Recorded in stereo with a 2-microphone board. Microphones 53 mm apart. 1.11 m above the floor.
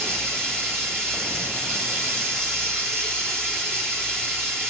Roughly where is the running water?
Right.